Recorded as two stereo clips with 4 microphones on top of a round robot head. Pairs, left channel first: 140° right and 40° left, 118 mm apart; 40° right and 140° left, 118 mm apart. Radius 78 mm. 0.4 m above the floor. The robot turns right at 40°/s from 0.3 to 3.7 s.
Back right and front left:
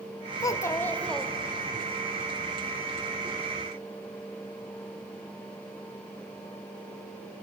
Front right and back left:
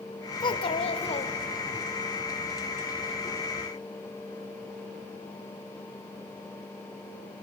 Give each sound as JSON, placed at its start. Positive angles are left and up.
{"t": 0.4, "sound": "a child speaking", "azimuth_deg": -85, "distance_m": 1.6}